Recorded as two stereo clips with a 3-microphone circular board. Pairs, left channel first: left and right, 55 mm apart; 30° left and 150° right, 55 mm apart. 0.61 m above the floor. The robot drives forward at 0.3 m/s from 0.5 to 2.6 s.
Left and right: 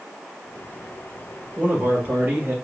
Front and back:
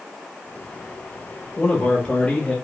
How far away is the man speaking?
About 2 m.